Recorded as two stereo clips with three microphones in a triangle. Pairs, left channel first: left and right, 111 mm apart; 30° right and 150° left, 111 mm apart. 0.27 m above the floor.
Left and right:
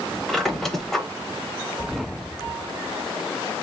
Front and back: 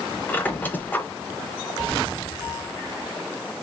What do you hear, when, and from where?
0.3 s a squeak: 5° left, 0.7 m